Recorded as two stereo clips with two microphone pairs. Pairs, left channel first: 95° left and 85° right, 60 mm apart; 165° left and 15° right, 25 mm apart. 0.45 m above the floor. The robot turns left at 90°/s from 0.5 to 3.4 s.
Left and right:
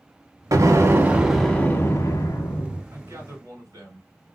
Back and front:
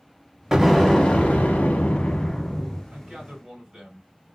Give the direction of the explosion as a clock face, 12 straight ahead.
3 o'clock.